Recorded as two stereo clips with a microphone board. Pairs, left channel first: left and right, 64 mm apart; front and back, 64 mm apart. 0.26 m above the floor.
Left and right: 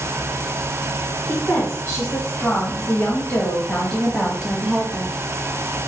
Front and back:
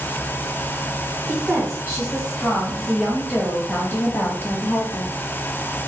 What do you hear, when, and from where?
1.3 s a woman speaking: 120° left, 1.6 m; by 5.1 s 10° right, 1.5 m